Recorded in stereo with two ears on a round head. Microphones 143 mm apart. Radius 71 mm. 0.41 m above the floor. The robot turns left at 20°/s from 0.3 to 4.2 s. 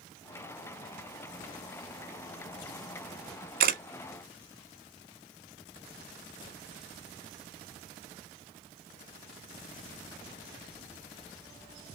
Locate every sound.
3.6 s a camera shutter: 65° right (ahead or behind), 1.0 m; by 3.8 s 60° right (ahead or behind), 1.0 m